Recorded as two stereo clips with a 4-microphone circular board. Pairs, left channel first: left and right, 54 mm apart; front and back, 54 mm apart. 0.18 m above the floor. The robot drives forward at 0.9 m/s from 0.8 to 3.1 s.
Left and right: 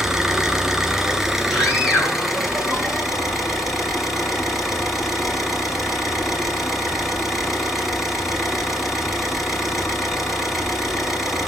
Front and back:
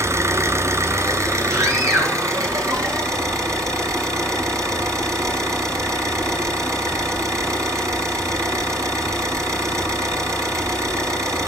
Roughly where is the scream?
Behind.